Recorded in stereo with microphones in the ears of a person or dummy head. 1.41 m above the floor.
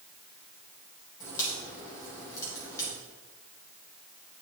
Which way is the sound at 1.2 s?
20° left (ahead or behind).